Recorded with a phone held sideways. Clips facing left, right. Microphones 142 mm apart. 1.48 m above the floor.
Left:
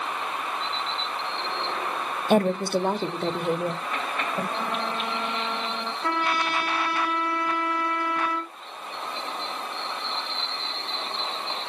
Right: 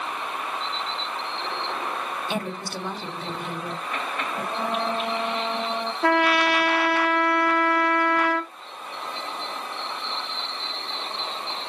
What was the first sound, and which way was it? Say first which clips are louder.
A woman speaking: left 14 dB; 50° left (ahead or behind).